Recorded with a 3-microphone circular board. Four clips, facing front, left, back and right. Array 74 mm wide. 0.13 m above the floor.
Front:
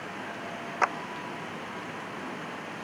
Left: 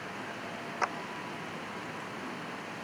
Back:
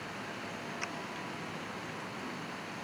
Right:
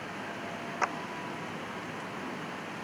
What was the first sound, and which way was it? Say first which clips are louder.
A clap: right 1 dB, front 18 dB; 5° right.